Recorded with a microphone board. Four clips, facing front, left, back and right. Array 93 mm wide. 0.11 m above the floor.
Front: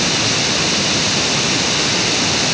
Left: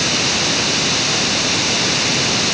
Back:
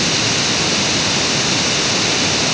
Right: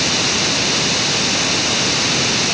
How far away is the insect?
I don't hear an insect.